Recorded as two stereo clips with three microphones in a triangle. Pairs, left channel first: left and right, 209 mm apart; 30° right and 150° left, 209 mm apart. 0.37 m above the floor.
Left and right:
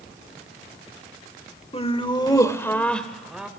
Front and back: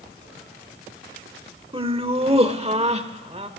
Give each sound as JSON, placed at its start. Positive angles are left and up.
{"t": 1.7, "sound": "laughter", "azimuth_deg": 115, "distance_m": 1.3}